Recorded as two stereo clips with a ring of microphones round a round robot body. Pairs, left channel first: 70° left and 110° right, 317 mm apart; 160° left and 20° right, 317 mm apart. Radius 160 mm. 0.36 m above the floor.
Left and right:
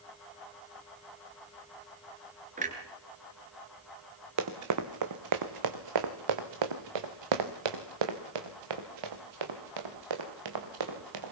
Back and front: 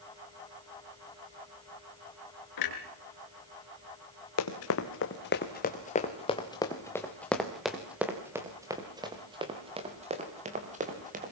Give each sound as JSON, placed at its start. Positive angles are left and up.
{"t": 2.6, "sound": "a clunk", "azimuth_deg": 180, "distance_m": 3.0}
{"t": 4.4, "sound": "running footsteps", "azimuth_deg": -160, "distance_m": 2.0}